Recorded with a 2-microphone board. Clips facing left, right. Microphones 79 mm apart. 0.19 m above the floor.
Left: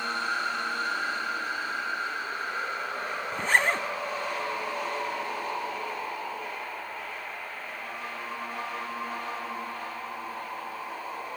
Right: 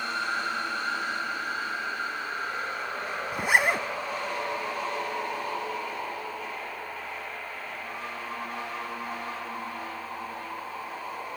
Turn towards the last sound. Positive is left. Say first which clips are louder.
# right 1 dB
turn(degrees=-10)  # may be behind; listen again after turning